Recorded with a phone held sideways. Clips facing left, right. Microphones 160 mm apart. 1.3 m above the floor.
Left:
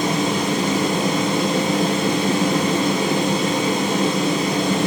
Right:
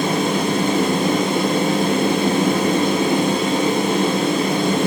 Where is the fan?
55° right (ahead or behind), 1.3 m.